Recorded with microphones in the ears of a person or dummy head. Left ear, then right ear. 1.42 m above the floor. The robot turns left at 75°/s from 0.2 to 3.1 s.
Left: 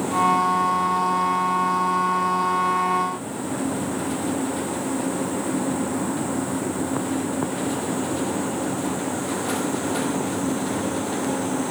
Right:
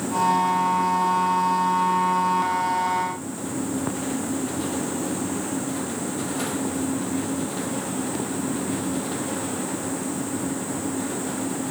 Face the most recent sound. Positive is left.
No sound to turn to.